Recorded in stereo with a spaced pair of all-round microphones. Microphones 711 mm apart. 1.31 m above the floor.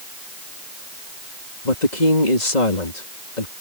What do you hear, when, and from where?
1.6 s a woman speaking: 80° left